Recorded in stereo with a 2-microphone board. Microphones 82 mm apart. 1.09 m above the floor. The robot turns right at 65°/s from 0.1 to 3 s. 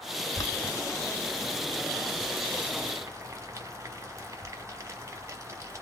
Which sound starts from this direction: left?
Boiling, at 0.3 s.